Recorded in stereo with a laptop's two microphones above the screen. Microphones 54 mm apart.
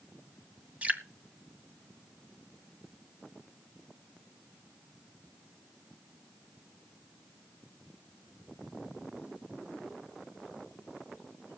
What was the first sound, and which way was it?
Dripping, 25° right (ahead or behind).